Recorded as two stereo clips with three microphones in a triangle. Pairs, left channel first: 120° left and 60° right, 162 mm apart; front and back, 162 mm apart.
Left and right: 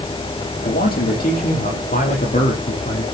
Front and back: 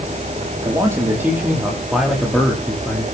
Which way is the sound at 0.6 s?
110° left.